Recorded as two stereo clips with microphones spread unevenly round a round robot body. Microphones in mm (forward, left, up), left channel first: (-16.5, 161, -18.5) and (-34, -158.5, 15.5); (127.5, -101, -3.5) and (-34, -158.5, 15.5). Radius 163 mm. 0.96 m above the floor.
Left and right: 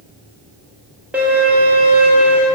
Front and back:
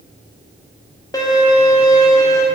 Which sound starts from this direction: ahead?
A violin, at 1.1 s.